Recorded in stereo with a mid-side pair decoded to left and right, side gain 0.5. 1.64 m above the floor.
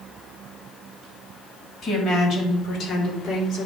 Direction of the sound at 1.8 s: 45° left.